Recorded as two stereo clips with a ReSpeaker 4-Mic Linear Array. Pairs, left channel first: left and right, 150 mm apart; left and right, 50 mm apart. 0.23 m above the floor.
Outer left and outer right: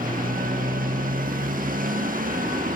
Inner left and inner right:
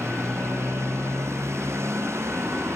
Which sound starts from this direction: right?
A motorcycle, at 0.0 s.